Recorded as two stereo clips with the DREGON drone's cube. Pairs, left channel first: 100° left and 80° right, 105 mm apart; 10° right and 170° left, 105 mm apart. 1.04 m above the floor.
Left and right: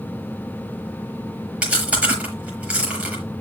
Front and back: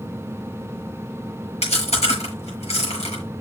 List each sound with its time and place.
1.6 s chewing: straight ahead, 6 m